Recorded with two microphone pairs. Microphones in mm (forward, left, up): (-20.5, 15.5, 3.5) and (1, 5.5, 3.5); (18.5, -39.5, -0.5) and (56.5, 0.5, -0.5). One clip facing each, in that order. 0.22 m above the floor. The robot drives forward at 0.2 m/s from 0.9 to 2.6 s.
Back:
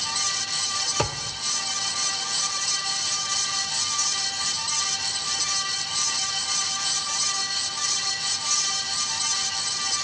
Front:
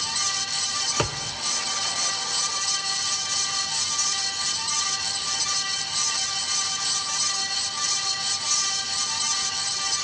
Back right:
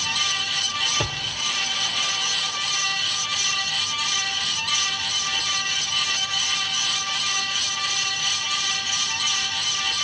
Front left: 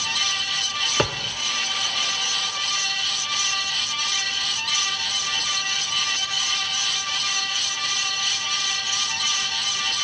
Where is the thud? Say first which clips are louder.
Even, front left 4 dB; 55° left, 3 m.